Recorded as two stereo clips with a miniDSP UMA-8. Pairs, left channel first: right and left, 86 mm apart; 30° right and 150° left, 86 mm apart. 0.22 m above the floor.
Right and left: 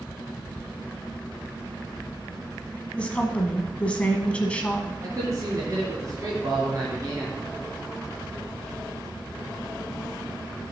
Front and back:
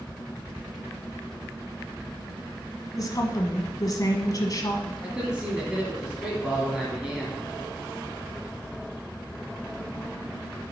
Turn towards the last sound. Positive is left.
turn(degrees=75)